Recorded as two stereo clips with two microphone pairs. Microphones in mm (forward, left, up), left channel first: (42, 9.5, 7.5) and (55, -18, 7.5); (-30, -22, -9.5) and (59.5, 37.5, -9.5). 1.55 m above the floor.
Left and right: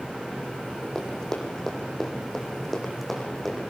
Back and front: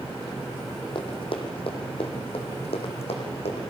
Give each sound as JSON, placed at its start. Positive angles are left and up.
{"t": 0.9, "sound": "running footsteps", "azimuth_deg": 180, "distance_m": 4.5}